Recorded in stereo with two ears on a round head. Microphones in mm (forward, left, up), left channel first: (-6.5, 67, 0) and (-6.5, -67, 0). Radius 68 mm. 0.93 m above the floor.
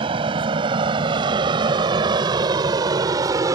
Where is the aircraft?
35° right (ahead or behind); by 3.5 s 20° right (ahead or behind).